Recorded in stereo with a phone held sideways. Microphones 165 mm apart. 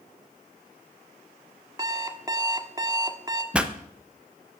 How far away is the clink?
I don't hear a clink.